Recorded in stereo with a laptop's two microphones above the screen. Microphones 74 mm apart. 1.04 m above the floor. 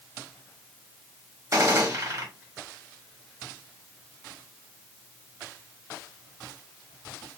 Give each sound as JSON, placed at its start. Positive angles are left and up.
{"t": 1.5, "sound": "a gunshot", "side_deg": -50, "distance_m": 1.4}